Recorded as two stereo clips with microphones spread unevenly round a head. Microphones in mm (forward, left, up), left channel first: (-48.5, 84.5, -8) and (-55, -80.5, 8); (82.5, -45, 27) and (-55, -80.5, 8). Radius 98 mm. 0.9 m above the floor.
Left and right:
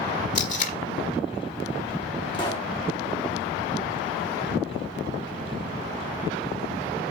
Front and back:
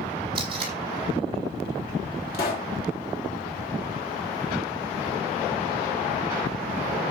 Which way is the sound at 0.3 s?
130° left.